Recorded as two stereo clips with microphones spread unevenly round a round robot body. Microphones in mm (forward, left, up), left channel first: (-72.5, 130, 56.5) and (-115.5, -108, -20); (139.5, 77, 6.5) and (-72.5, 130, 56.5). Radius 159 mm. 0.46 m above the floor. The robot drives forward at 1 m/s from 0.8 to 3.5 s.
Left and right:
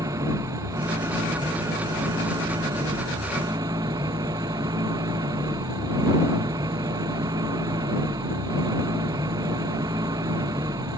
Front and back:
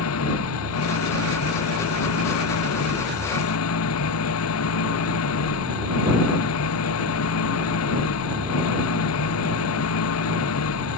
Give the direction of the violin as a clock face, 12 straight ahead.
No violin in this recording.